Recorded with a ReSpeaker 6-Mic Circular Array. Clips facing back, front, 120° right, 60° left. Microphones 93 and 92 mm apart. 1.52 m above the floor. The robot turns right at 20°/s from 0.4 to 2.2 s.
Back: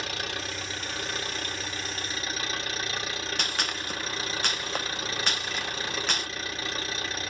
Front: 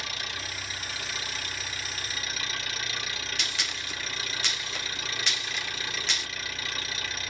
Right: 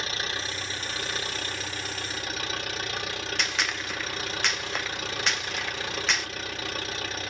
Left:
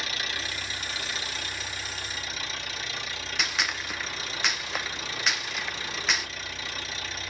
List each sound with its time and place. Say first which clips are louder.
0.0 s an engine running: back 4 dB, right 2 dB; 170° right, 1.9 m; by 7.3 s 130° right, 1.9 m
3.4 s a gunshot: back 4 dB, left 1 dB; 145° left, 0.5 m